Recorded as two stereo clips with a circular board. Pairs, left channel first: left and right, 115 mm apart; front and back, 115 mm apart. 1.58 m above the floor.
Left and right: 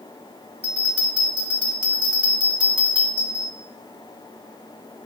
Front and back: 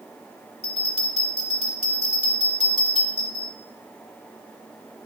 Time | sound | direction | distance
0.6 | a bell | 15° right | 5.5 m